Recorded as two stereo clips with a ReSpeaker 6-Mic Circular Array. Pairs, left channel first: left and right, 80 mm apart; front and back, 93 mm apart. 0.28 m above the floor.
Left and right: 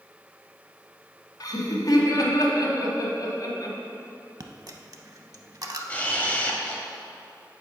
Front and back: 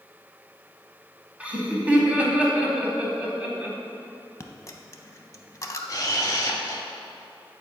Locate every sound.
1.4 s laughter: 110° left, 1.5 m
4.4 s a dropped coin: 50° right, 0.5 m
5.9 s a camera shutter: 25° left, 0.8 m